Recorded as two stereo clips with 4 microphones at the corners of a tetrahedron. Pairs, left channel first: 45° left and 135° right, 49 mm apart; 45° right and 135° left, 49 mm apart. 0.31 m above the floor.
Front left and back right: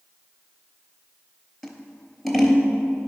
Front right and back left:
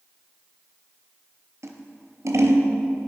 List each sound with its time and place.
1.6 s scissors: 135° left, 0.9 m